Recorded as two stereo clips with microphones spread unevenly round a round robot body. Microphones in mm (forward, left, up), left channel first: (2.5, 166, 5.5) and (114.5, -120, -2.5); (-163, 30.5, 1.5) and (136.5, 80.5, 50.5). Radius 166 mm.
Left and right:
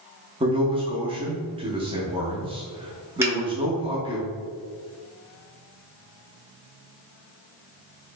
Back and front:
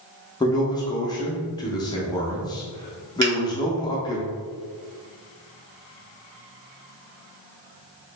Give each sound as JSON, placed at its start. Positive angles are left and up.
{"t": 0.4, "sound": "a man speaking", "azimuth_deg": -125, "distance_m": 0.8}
{"t": 3.2, "sound": "a finger snap", "azimuth_deg": 15, "distance_m": 1.9}